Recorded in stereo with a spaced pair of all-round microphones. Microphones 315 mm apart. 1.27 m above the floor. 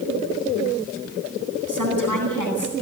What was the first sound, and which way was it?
A woman speaking, 80° right.